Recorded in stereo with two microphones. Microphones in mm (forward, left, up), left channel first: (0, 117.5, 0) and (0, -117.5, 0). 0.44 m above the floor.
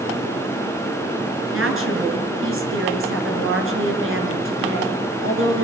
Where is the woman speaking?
65° right (ahead or behind), 7 m.